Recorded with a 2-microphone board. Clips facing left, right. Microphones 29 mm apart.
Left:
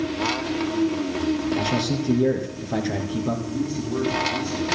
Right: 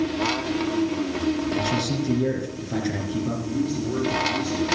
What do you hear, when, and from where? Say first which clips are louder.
1.6 s a man speaking: left 1 dB; 5° left (ahead or behind), 2.5 m
3.5 s a man speaking: right 1 dB; 60° right (ahead or behind), 5.5 m